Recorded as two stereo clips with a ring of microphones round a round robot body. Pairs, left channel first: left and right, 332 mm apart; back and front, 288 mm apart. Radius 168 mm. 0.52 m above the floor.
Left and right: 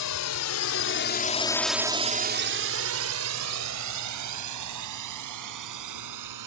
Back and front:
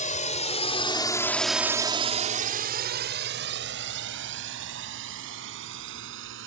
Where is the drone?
120° left; by 6.5 s 55° right.